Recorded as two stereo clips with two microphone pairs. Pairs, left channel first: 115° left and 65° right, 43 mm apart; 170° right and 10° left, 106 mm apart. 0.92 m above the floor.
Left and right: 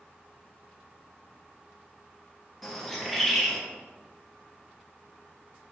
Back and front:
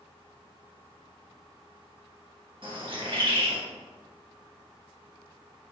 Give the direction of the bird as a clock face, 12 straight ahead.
11 o'clock.